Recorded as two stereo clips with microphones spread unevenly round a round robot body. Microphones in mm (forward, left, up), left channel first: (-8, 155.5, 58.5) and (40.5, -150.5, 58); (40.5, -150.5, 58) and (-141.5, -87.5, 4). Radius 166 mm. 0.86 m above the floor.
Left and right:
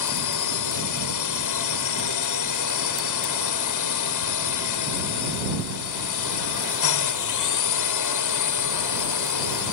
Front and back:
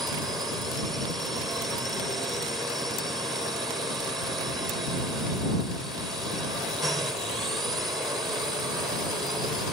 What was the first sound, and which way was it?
A drone, 75° left.